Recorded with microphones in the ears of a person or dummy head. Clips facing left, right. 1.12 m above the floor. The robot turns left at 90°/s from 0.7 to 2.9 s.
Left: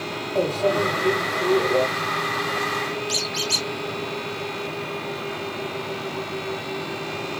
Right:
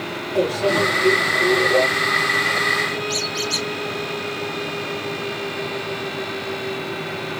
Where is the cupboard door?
No cupboard door in this recording.